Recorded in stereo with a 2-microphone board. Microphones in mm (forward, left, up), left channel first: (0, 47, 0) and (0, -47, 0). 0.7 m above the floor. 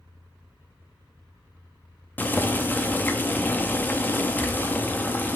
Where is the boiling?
20° left (ahead or behind), 0.8 m.